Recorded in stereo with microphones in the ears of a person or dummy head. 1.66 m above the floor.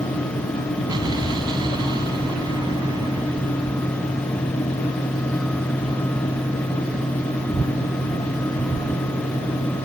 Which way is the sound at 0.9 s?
25° right (ahead or behind).